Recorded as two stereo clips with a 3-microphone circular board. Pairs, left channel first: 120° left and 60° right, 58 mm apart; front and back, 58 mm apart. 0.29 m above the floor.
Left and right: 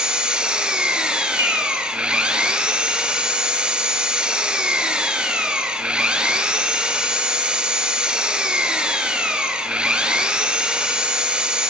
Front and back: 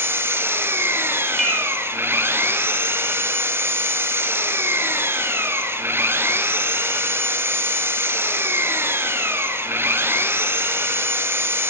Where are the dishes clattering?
85° right, 5.5 m.